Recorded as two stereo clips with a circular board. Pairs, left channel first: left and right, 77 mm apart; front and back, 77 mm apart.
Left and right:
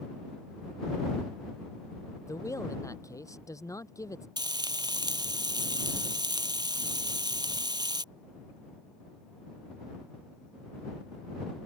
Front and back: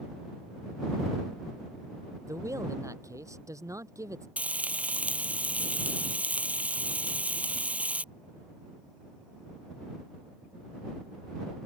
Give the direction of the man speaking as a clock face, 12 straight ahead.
8 o'clock.